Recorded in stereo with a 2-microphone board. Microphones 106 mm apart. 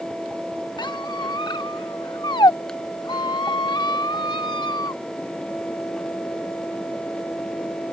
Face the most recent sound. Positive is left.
turn(degrees=45)  # may be behind; listen again after turning